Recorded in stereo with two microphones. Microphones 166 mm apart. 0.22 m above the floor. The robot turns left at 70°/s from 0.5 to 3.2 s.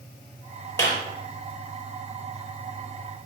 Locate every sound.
0.8 s a clap: 15° left (ahead or behind), 4.5 m; by 1.0 s 30° left (ahead or behind), 4.5 m